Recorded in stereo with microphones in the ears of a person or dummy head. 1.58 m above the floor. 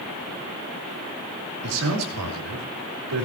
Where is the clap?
I don't hear a clap.